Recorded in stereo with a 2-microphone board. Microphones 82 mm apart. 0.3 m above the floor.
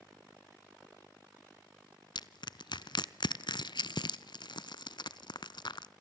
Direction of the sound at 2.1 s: 70° left (ahead or behind).